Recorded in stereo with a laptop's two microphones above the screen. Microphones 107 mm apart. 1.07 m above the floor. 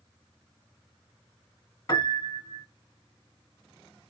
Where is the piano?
35° left (ahead or behind), 1.7 m.